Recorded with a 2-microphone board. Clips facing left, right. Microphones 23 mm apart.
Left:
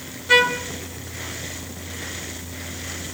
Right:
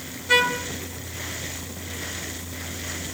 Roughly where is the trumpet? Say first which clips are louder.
Left 3 dB; centre.